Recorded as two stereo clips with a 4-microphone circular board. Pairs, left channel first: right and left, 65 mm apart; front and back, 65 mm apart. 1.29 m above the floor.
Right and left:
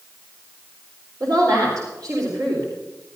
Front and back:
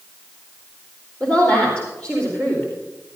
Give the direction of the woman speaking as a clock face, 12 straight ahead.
10 o'clock.